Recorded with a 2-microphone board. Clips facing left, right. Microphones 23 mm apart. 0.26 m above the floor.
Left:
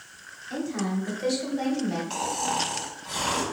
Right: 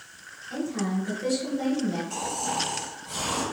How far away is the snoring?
About 1.1 m.